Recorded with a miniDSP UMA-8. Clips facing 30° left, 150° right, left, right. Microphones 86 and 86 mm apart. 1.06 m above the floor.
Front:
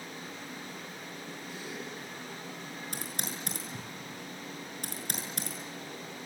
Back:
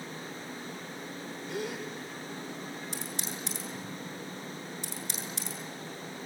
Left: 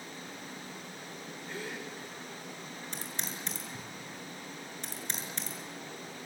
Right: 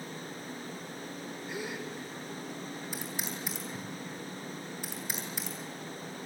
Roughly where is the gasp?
Behind.